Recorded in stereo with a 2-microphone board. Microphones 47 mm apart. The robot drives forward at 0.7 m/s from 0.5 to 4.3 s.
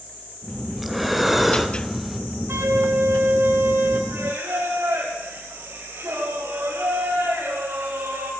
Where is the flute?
65° right (ahead or behind), 3 m.